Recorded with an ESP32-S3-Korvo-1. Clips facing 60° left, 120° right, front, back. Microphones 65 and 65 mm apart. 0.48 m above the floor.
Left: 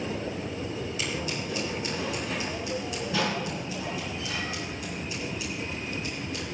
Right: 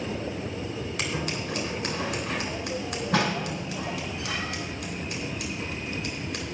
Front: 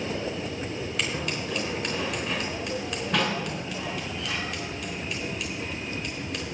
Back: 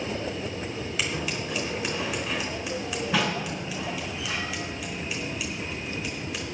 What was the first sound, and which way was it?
Scissors, 95° right.